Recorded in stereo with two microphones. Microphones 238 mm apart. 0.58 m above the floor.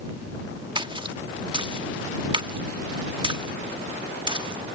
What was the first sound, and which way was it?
A splash, 20° right (ahead or behind).